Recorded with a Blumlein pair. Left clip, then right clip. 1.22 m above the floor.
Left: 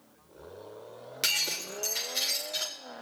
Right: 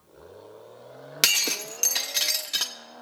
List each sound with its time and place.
1.2 s breaking glass: 60° right, 1.6 m